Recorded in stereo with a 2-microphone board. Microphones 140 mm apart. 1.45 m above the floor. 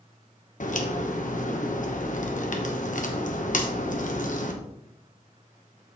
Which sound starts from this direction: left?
A crack, at 0.6 s.